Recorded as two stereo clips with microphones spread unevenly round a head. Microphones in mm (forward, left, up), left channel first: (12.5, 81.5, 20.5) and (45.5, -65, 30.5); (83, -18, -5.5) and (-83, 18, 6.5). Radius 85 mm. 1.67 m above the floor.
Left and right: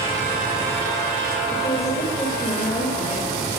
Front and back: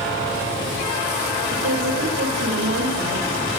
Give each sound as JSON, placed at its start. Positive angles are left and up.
{"t": 1.5, "sound": "a woman speaking", "azimuth_deg": 175, "distance_m": 7.5}